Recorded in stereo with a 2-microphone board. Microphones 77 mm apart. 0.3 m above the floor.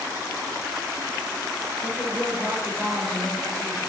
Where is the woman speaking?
Centre (ahead or behind), 6 m.